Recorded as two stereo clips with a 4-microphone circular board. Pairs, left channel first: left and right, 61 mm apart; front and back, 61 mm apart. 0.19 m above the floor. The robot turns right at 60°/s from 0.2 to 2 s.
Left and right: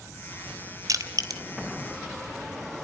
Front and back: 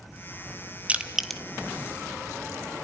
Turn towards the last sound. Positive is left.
turn(degrees=-45)